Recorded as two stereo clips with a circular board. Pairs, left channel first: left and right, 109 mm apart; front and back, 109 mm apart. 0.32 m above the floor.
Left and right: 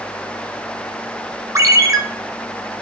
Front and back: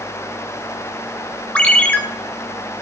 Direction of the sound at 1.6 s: 70° right.